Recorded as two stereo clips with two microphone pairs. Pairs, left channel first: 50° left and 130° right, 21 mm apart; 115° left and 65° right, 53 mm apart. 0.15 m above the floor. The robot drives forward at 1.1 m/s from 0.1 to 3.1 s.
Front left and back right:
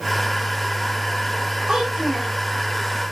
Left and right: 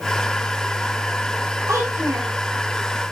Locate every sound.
1.7 s a child speaking: 85° right, 5 m; by 2.3 s 95° right, 5 m